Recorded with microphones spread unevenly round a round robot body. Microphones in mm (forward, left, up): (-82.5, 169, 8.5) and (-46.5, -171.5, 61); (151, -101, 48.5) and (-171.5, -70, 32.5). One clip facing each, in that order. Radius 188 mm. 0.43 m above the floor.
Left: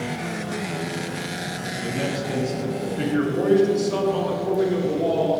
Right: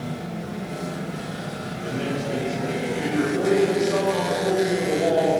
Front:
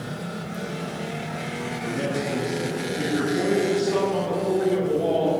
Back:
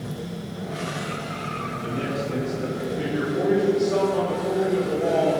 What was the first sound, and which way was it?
A man speaking, 90° left.